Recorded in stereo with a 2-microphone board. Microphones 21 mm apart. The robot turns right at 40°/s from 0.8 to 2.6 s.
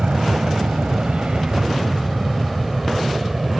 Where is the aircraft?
70° right (ahead or behind); by 3.6 s 15° right (ahead or behind).